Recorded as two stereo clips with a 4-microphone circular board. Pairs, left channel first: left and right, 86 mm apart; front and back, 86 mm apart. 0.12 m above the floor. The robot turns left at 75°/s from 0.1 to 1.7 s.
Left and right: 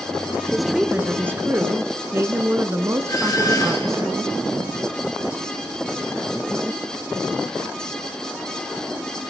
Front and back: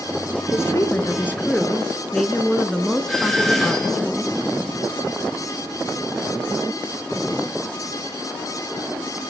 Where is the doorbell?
85° left, 3 m.